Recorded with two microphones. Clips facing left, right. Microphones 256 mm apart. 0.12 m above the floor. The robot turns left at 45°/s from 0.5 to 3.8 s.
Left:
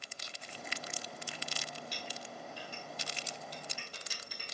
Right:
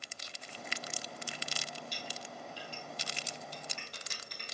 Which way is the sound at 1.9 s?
70° left (ahead or behind).